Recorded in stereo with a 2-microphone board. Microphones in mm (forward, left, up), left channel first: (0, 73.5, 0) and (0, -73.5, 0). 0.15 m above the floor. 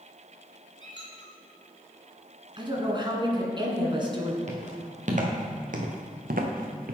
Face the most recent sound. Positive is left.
turn(degrees=-85)